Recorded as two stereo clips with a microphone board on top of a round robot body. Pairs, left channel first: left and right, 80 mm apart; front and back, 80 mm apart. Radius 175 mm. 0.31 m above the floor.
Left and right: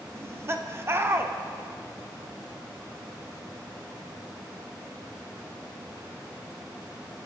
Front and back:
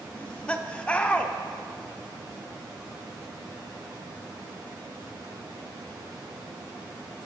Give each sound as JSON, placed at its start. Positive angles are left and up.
{"t": 0.1, "sound": "laughter", "azimuth_deg": -65, "distance_m": 1.3}